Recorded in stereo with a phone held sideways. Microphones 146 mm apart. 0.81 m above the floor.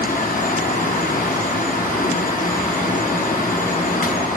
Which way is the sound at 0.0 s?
70° left (ahead or behind).